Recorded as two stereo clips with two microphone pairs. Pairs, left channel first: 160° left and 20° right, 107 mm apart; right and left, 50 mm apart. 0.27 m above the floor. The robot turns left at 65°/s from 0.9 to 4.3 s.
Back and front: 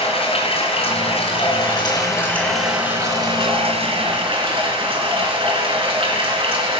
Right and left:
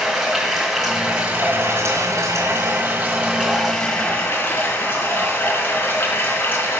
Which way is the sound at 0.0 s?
Straight behind.